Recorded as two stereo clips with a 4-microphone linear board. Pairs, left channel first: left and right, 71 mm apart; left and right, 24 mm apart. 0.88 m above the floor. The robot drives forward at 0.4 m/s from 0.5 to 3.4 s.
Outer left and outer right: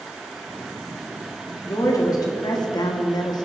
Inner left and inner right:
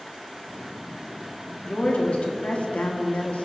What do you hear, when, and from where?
1.6 s a woman speaking: 55° left (ahead or behind), 1.2 m; by 3.5 s 70° left (ahead or behind), 1.1 m